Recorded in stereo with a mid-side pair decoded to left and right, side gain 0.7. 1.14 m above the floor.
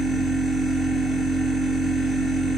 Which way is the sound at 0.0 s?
Straight ahead.